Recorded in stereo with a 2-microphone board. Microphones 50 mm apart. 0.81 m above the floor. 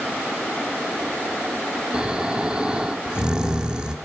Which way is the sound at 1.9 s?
20° right (ahead or behind).